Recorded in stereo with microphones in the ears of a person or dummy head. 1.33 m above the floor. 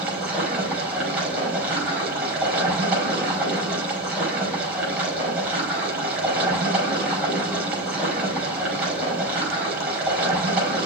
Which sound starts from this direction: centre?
Running water, at 0.0 s.